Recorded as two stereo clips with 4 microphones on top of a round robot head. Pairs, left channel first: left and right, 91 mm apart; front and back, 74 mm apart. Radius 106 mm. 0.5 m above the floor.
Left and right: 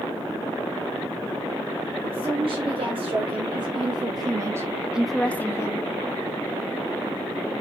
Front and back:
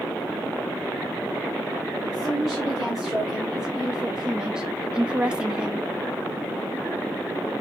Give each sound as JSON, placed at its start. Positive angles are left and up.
{"t": 2.0, "sound": "a woman speaking", "azimuth_deg": -95, "distance_m": 2.5}